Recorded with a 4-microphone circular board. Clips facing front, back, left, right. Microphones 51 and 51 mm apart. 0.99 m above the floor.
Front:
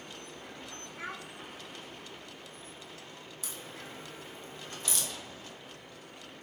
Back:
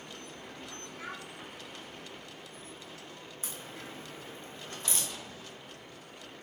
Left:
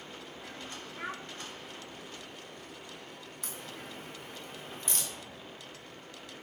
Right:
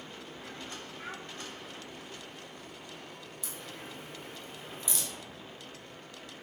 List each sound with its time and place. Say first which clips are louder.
1.0 s a child speaking: front 2 dB, left 5 dB; 65° left, 1.4 m
3.4 s a crack: back 1 dB, left 1 dB; 125° left, 1.7 m